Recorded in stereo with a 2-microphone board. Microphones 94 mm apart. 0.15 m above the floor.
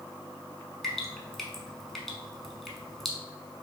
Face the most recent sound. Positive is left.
turn(degrees=5)  # may be behind; listen again after turning